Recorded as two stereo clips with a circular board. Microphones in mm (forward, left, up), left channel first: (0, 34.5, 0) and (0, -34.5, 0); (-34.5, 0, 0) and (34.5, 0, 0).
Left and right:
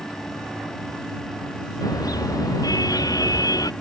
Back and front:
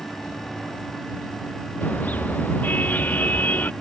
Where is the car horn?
115° left.